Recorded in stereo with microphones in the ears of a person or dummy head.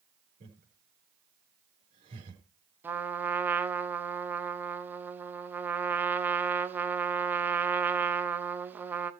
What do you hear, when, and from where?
0.4 s laughter: 40° right (ahead or behind), 4.5 m
2.8 s a trumpet: 10° right (ahead or behind), 1.0 m